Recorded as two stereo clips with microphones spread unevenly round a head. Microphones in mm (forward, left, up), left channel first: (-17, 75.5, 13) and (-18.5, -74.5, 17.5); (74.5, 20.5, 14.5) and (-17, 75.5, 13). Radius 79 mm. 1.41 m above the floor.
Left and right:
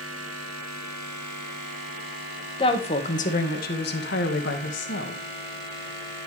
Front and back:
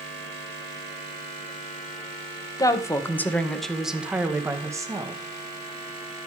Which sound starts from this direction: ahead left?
A woman speaking, at 2.6 s.